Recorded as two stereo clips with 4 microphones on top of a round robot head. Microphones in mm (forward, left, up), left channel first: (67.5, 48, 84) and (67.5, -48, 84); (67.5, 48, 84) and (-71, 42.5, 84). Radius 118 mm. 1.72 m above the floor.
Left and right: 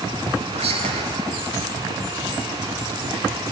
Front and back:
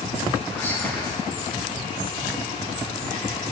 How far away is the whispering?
About 1.1 m.